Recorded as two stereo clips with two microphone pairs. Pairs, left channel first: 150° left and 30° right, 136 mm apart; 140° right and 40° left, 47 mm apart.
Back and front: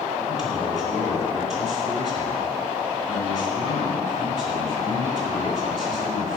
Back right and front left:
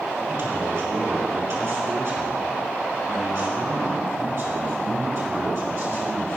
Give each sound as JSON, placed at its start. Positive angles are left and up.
{"t": 0.3, "sound": "a man speaking", "azimuth_deg": 55, "distance_m": 3.5}